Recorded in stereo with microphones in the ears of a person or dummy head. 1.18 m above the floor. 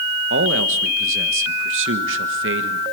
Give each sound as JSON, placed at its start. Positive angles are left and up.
{"t": 0.3, "sound": "a man speaking", "side_deg": -65, "distance_m": 1.5}